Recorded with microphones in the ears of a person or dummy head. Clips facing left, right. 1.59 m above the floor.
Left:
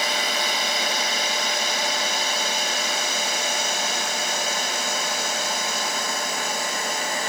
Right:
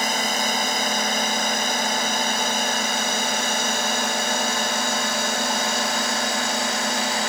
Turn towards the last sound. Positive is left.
turn(degrees=-50)  # may be behind; listen again after turning